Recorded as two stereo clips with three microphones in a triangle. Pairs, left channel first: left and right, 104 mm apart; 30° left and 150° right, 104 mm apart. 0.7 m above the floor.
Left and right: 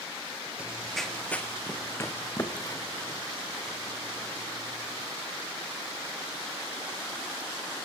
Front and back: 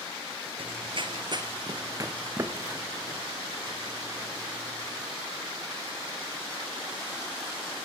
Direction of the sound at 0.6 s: 165° right.